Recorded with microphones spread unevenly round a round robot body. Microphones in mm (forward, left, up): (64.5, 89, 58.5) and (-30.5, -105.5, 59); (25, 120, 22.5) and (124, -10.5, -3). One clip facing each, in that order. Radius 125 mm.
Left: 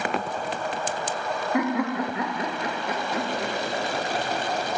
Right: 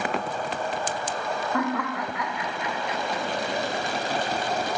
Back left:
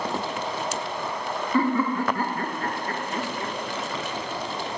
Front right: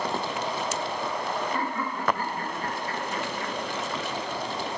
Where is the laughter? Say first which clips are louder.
Left 5 dB, back left 8 dB; 140° left, 2.0 m; by 3.5 s 60° left, 1.7 m.